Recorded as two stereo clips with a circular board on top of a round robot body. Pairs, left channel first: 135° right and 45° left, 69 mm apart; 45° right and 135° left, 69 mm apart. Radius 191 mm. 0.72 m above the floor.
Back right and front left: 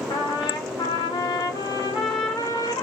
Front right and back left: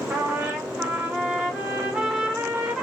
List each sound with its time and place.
0.1 s a trumpet: 150° right, 0.7 m